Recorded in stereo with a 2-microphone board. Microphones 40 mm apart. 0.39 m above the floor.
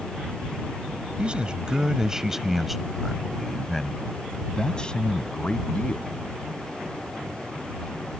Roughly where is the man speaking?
Right.